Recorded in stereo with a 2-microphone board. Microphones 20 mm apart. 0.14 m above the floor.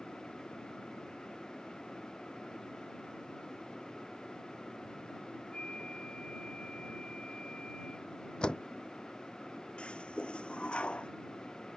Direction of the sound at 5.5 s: 55° left (ahead or behind).